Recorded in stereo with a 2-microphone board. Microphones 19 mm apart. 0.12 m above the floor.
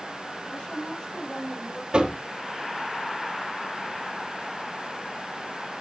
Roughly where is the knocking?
Right.